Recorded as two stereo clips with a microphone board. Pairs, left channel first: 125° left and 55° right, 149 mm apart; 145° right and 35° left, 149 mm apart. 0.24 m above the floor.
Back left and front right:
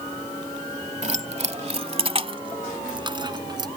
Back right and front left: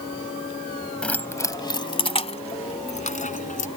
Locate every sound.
1.0 s keys jangling: 65° right; by 3.7 s 115° right